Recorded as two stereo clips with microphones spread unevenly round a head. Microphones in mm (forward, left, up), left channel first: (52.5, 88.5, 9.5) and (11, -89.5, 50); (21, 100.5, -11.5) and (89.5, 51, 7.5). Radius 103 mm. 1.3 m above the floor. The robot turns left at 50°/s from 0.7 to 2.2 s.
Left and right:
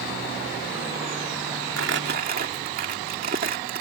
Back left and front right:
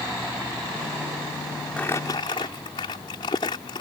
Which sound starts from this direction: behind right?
Crumpling, at 1.8 s.